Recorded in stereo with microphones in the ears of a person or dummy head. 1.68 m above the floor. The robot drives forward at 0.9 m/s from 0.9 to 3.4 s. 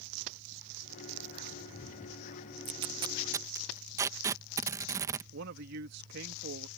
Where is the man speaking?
55° right (ahead or behind).